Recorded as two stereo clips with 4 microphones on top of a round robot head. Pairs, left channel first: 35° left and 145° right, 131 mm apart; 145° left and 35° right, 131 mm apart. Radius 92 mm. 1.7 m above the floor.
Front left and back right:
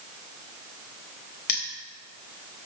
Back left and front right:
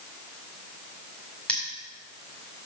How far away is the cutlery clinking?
About 2 m.